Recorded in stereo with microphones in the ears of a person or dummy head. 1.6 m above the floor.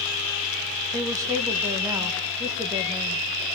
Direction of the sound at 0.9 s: 20° right (ahead or behind).